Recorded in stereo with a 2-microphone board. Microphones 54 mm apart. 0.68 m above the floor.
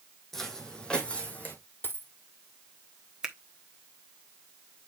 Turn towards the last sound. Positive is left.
turn(degrees=-10)  # may be behind; listen again after turning